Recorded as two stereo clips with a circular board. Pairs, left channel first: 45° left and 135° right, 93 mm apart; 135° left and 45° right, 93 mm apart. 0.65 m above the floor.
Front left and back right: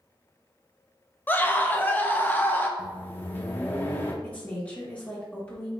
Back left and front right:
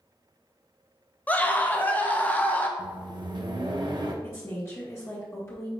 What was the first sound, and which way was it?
A scream, 85° left.